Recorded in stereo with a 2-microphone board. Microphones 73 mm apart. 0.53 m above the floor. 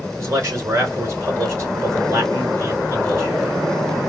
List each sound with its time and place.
0.2 s a man speaking: 40° right (ahead or behind), 2 m